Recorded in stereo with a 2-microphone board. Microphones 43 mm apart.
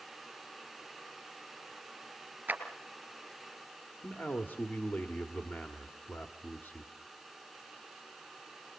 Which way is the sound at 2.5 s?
40° right (ahead or behind).